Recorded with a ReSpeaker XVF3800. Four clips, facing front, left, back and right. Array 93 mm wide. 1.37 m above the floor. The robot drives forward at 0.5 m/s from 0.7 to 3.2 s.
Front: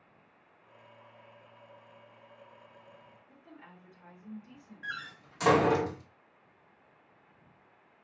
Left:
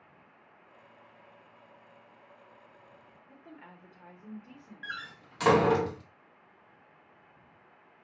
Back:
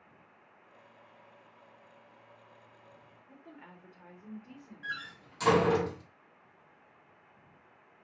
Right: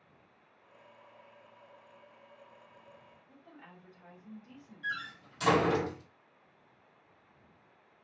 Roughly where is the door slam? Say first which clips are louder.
Right 3 dB, even; left.